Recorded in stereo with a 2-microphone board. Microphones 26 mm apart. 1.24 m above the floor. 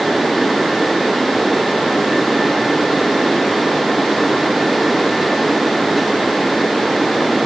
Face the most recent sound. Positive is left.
No sound to turn to.